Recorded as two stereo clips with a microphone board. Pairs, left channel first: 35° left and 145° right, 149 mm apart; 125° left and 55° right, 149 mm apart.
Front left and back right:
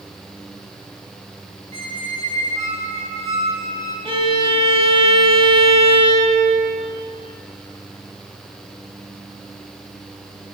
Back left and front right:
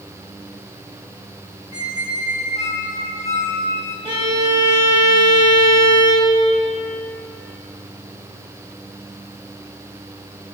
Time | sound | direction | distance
1.7 | a squeak | 170° left | 1.6 m
4.0 | a violin | 105° right | 1.5 m